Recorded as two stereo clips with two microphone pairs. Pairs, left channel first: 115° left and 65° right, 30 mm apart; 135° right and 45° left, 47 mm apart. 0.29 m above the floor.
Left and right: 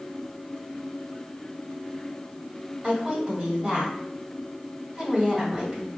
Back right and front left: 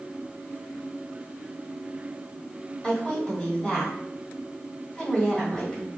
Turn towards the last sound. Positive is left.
turn(degrees=-80)